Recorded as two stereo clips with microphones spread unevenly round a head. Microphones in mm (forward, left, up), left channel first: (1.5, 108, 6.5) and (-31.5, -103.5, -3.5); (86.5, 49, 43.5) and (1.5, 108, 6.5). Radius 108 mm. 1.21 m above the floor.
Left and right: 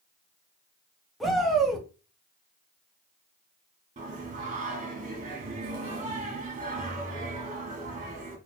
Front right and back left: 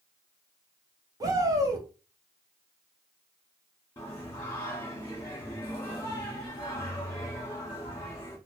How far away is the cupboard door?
No cupboard door in this recording.